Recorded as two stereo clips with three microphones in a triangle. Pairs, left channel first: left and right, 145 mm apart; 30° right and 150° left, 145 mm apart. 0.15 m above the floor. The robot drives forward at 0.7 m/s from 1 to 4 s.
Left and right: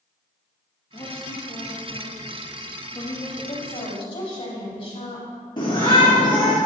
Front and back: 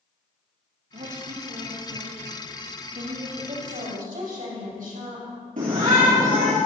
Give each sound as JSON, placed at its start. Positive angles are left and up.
{"t": 0.9, "sound": "a woman speaking", "azimuth_deg": 145, "distance_m": 4.5}
{"t": 3.4, "sound": "a woman speaking", "azimuth_deg": 135, "distance_m": 6.0}
{"t": 5.6, "sound": "a shout", "azimuth_deg": 145, "distance_m": 4.0}